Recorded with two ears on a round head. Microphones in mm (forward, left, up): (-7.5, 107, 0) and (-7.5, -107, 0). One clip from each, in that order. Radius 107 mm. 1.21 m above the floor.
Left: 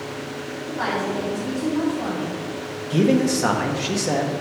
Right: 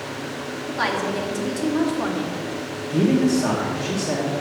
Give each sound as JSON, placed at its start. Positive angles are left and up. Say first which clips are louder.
{"t": 0.7, "sound": "a woman speaking", "louder": "right 1 dB", "side_deg": -60, "distance_m": 2.0}
{"t": 2.9, "sound": "a man speaking", "louder": "left 1 dB", "side_deg": 75, "distance_m": 0.8}